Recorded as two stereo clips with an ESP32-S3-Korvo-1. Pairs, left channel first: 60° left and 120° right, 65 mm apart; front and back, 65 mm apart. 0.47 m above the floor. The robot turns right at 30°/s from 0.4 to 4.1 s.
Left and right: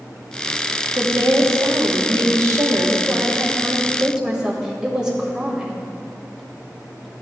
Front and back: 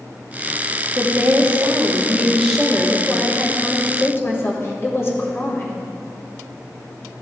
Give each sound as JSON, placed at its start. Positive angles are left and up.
{"t": 0.9, "sound": "a woman speaking", "azimuth_deg": -140, "distance_m": 1.8}